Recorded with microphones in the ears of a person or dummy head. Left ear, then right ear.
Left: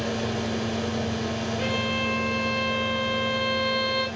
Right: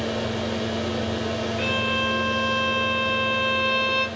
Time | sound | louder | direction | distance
0.0 | a fan | right 2 dB | 10° right (ahead or behind) | 1.3 m
1.6 | a violin | right 3 dB | 55° right (ahead or behind) | 2 m